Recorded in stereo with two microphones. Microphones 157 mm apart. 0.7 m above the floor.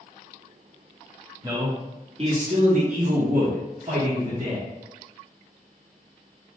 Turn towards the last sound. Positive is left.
turn(degrees=-50)  # may be behind; listen again after turning